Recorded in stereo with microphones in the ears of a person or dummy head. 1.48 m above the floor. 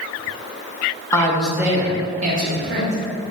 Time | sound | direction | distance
1.1 | a woman speaking | 15° left (ahead or behind) | 0.6 m